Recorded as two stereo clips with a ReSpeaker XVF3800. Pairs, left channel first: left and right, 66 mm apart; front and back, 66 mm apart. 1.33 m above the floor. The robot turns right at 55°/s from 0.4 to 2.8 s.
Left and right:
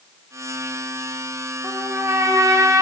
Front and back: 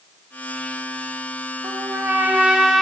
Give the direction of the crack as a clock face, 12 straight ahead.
No crack in this recording.